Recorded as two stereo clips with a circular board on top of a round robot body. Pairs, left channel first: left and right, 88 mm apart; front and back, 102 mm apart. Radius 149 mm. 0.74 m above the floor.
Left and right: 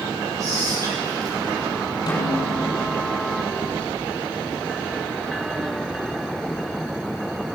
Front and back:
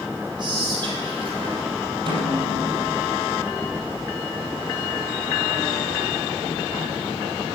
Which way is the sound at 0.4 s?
140° right.